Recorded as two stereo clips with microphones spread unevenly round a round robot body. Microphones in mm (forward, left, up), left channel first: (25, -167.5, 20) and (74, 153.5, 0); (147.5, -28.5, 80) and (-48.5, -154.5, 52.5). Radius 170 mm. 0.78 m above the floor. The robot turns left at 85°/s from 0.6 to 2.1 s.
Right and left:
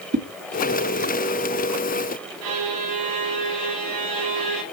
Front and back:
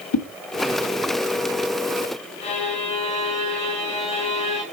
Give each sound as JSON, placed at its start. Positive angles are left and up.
{"t": 0.1, "sound": "a whoosh", "azimuth_deg": 25, "distance_m": 1.4}
{"t": 2.4, "sound": "a violin", "azimuth_deg": 105, "distance_m": 2.0}